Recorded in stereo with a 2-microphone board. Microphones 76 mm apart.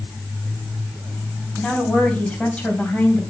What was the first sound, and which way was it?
A woman speaking, 5° left (ahead or behind).